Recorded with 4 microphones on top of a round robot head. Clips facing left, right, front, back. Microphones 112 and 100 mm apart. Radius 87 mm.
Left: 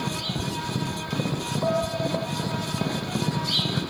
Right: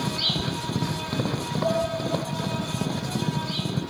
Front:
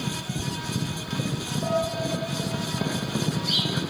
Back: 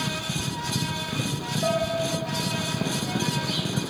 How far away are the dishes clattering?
About 4.5 m.